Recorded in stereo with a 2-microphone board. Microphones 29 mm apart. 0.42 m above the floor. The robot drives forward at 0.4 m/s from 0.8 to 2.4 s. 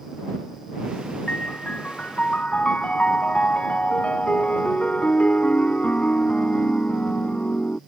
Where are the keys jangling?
No keys jangling in this recording.